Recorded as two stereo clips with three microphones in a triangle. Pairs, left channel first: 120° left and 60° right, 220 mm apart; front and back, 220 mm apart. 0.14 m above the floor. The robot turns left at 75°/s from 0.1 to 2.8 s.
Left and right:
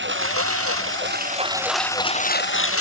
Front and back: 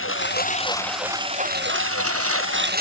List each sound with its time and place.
0.0 s a lawn mower: 25° right; by 2.8 s 130° left